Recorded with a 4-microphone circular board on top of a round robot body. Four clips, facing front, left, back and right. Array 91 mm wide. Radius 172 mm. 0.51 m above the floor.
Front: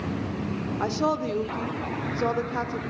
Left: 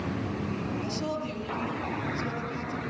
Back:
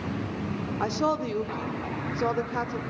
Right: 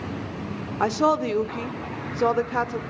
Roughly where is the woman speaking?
Right.